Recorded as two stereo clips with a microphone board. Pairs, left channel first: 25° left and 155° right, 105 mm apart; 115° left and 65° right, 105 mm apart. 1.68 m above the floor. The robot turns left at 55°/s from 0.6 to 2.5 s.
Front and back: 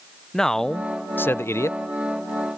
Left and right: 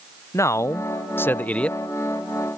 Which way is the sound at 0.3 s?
105° left.